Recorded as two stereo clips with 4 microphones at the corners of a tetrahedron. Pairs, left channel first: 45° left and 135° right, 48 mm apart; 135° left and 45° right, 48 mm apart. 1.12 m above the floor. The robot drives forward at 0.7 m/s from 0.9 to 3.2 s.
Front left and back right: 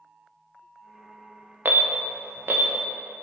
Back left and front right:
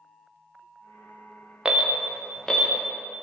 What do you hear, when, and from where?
1.6 s an alarm: 110° right, 0.7 m; by 2.7 s 150° right, 1.2 m